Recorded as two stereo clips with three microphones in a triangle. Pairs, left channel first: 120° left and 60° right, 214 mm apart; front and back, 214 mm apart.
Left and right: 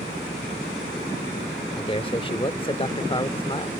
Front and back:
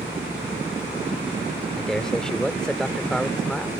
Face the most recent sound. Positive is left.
turn(degrees=85)